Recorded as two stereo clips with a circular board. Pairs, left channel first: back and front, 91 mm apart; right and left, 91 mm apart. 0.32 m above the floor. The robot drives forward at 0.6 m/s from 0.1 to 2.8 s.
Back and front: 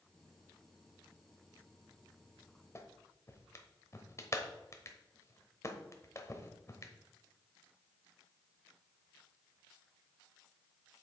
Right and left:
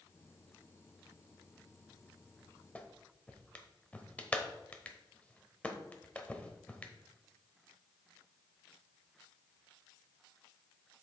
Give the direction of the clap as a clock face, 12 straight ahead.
5 o'clock.